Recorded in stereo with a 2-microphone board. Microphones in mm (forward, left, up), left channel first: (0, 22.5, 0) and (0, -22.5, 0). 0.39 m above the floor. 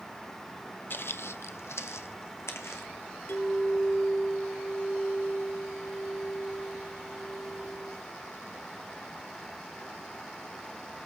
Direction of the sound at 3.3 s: 70° left (ahead or behind).